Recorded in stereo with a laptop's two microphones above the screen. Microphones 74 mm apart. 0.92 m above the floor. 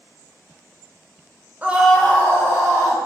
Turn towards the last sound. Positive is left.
turn(degrees=50)  # may be behind; listen again after turning